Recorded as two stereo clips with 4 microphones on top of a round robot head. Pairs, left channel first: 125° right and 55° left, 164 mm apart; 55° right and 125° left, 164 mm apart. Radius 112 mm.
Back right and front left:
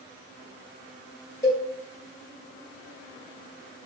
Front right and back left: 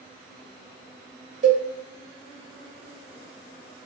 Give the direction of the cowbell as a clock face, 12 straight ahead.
6 o'clock.